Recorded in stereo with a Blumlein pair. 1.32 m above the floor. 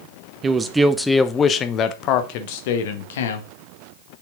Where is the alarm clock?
I don't hear an alarm clock.